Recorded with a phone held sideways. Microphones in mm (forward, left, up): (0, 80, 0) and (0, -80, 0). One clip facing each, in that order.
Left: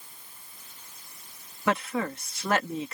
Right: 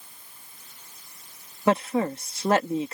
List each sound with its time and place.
1.7 s a woman speaking: 30° right (ahead or behind)